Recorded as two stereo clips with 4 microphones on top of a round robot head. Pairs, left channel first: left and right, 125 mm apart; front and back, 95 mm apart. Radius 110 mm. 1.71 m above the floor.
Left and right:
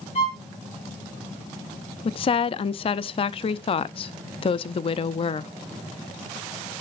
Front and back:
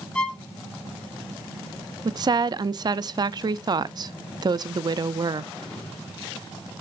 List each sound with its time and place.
0.1 s a violin: 75° left, 1.6 m
2.0 s a woman speaking: 135° left, 0.5 m